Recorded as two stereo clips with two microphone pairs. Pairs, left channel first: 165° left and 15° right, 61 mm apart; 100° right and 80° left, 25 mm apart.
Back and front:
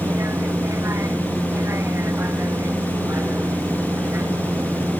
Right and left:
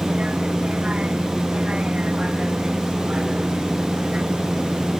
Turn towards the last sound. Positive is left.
turn(degrees=30)